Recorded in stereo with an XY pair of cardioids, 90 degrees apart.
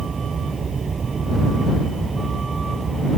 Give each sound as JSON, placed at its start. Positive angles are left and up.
{"t": 0.0, "sound": "a vehicle", "azimuth_deg": -45}